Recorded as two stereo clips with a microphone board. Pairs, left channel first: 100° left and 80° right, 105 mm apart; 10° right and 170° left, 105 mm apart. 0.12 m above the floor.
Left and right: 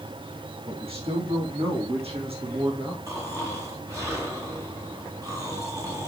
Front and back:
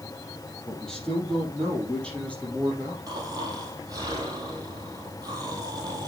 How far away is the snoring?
About 3.5 m.